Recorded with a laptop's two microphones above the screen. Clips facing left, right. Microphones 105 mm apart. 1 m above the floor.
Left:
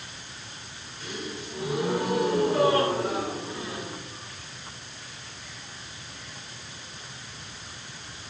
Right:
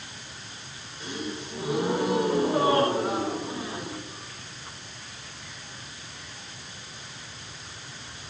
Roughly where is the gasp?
Right.